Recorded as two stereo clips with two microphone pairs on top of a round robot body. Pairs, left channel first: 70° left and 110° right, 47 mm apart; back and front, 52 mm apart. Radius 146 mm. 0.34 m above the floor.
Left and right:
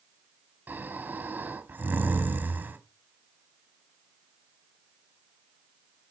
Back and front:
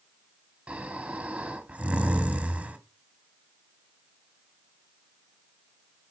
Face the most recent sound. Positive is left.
turn(degrees=-65)